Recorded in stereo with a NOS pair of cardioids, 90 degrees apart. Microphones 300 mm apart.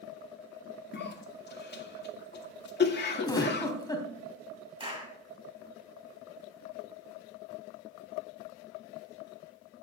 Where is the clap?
15° right, 6.5 m.